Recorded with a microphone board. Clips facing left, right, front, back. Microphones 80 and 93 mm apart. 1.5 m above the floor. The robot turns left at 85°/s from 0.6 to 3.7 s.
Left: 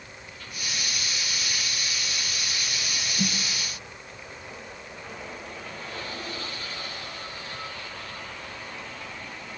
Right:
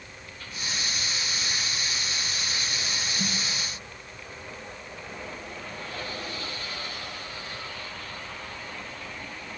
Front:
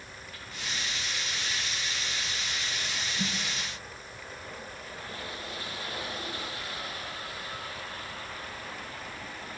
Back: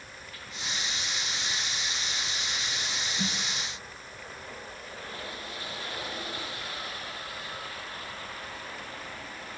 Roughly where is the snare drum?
Left.